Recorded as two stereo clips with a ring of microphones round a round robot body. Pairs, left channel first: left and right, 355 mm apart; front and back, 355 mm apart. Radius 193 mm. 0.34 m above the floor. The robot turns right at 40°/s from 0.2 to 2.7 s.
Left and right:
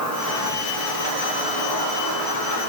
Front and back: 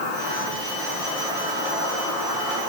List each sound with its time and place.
0.0 s an insect: 50° left, 5 m; by 2.7 s 150° left, 5 m